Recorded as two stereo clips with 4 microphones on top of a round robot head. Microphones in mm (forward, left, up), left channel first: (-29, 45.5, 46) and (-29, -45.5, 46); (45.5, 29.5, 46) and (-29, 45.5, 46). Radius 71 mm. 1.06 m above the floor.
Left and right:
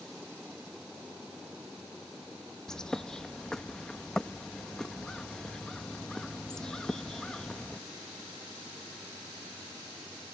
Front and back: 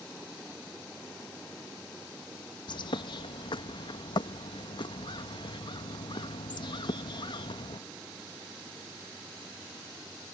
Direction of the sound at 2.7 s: 5° left.